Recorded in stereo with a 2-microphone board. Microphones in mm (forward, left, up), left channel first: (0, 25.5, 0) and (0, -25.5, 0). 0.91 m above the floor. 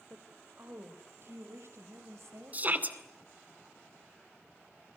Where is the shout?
30° right (ahead or behind), 2 m.